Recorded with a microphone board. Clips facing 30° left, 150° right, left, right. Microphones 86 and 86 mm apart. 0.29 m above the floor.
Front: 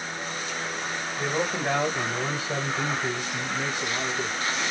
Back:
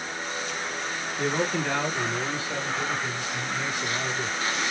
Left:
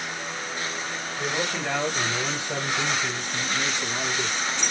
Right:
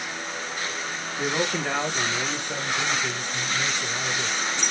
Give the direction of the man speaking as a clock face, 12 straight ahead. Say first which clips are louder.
Back 1 dB, right 3 dB; 1 o'clock.